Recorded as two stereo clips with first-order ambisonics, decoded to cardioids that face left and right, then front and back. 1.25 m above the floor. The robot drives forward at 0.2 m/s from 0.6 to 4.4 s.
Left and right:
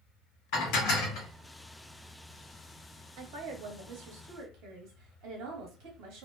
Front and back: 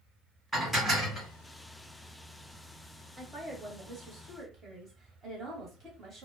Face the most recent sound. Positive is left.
turn(degrees=-120)